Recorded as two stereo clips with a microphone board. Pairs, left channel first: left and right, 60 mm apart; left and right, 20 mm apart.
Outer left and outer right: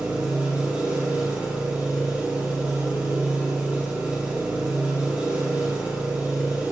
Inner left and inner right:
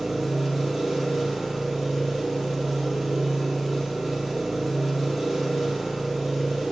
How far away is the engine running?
About 4 m.